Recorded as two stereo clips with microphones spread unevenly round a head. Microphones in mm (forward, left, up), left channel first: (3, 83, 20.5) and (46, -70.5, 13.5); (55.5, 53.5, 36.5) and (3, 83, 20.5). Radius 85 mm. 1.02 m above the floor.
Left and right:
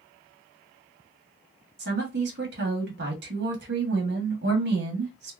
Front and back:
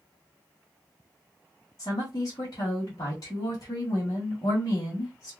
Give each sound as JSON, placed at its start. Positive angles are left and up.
{"t": 1.8, "sound": "a woman speaking", "azimuth_deg": -75, "distance_m": 1.3}